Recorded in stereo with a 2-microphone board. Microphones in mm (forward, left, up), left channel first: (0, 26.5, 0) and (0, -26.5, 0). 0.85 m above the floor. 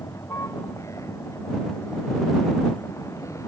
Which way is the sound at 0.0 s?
75° left (ahead or behind).